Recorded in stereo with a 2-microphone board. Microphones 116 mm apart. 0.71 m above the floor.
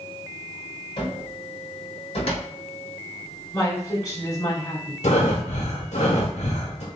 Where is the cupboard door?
55° left (ahead or behind), 1.6 m.